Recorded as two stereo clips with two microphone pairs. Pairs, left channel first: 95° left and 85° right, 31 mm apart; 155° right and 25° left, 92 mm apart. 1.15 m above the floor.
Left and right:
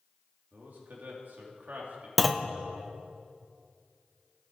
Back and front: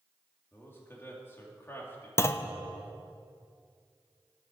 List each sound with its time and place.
0.5 s a man speaking: 90° right, 2.5 m
2.2 s a clunk: 175° right, 0.5 m